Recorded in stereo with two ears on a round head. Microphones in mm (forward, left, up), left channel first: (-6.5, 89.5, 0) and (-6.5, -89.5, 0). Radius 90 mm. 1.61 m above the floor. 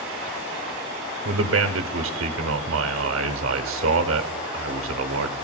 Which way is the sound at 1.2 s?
70° right (ahead or behind).